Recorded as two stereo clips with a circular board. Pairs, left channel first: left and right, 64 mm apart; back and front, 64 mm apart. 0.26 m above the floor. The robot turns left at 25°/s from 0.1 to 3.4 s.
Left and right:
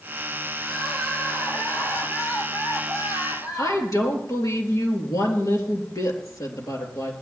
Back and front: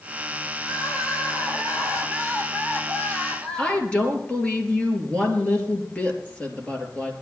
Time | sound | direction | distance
0.6 | crying | straight behind | 5 m
3.6 | a woman speaking | 110° left | 4 m